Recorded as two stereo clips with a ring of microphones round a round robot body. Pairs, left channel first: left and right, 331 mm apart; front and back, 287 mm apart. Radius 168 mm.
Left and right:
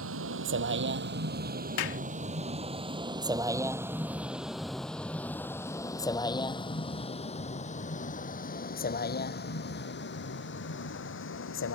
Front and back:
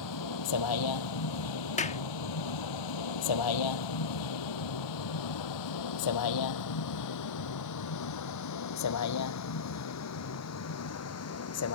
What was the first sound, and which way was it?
A vehicle, 40° right.